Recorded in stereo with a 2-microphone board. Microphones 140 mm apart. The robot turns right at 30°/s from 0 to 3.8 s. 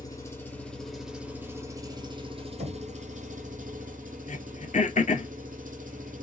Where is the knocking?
60° right (ahead or behind), 1.7 m; by 2.8 s 55° right (ahead or behind), 1.7 m.